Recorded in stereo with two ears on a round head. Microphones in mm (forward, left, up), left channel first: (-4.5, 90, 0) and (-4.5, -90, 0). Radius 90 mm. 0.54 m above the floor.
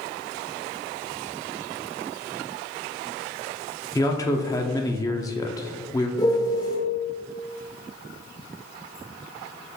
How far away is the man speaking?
About 0.6 m.